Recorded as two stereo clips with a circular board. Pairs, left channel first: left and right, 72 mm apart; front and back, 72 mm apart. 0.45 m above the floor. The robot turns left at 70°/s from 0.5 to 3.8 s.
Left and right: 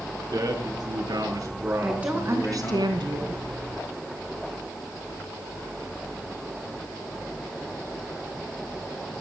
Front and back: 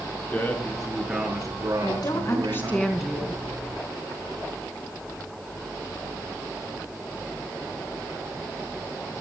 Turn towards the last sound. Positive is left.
turn(degrees=-145)